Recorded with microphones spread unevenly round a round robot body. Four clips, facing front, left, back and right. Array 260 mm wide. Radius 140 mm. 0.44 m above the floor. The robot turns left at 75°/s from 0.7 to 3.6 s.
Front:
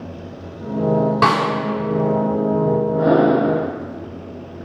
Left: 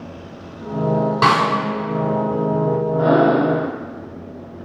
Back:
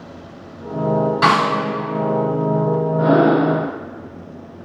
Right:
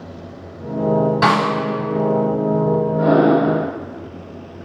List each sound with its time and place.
1.2 s a snare drum: 25° left, 1.8 m; by 1.5 s 5° left, 1.8 m
3.0 s breathing: 30° right, 1.5 m; by 3.6 s 75° right, 1.5 m